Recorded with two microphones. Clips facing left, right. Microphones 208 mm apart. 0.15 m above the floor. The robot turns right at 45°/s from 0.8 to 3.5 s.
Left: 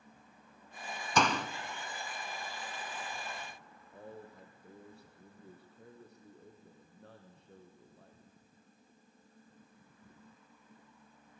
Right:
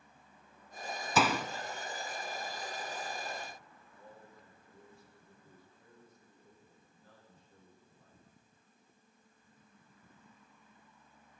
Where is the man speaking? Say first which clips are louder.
Left 7 dB; 75° left (ahead or behind), 6 m.